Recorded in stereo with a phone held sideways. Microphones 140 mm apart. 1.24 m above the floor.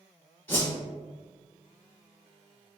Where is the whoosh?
15° left (ahead or behind), 1.3 m.